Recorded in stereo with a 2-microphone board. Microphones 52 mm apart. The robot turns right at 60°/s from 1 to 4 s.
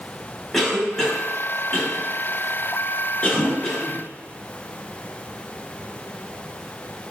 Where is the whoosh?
65° left (ahead or behind), 1.4 m; by 3.6 s 45° left (ahead or behind), 1.4 m.